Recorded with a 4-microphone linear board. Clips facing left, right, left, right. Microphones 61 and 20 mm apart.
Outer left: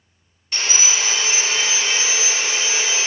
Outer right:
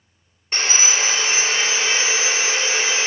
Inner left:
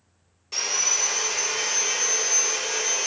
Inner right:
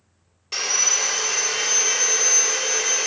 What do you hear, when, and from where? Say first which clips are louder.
0.5 s sawing: outer right 2 dB, inner right 3 dB; 35° right (ahead or behind), 1.7 m